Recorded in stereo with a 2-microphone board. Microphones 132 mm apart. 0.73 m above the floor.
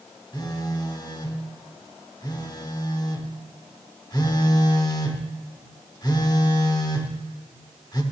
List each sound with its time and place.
0.3 s a phone buzzing: 30° left (ahead or behind), 0.9 m